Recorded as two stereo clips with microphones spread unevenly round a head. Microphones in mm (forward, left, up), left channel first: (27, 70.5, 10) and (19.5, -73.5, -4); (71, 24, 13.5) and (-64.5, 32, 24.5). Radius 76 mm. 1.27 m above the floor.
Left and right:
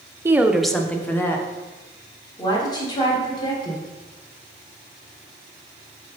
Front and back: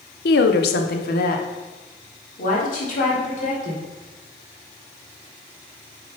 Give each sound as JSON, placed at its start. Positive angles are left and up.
{"t": 0.2, "sound": "a woman speaking", "azimuth_deg": -20, "distance_m": 0.6}